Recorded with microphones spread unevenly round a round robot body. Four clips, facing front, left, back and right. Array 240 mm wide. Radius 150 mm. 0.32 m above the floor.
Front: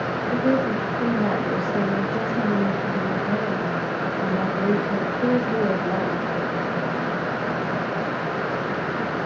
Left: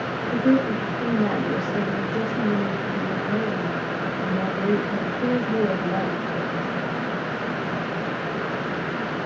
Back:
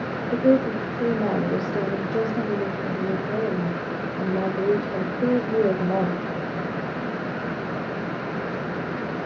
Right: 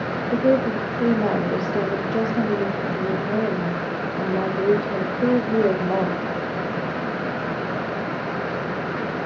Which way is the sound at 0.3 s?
165° right.